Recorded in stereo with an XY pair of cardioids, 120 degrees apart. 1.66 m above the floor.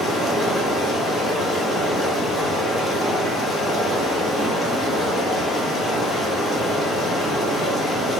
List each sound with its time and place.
0.0 s running water: 35° left, 0.9 m